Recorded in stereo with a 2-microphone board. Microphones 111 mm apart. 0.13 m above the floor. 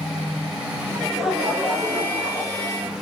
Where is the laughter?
10° left (ahead or behind), 1.2 m; by 2.9 s 50° right (ahead or behind), 1.9 m.